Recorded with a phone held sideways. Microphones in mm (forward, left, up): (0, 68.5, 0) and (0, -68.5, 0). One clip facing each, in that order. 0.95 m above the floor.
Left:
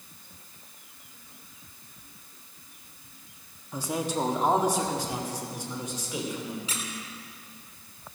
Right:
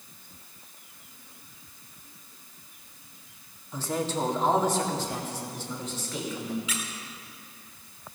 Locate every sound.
3.7 s a man speaking: 10° left (ahead or behind), 1.4 m; by 6.6 s 15° left (ahead or behind), 3 m
6.7 s a squeak: 35° left (ahead or behind), 1.7 m